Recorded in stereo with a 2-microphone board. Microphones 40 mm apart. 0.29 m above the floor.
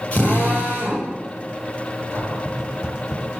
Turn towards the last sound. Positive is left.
turn(degrees=60)  # may be behind; listen again after turning